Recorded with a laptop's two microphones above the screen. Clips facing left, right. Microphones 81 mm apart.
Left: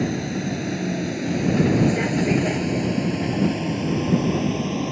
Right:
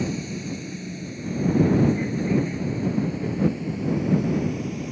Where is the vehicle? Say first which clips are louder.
Left 4 dB; 60° left (ahead or behind); by 4.9 s 65° left (ahead or behind).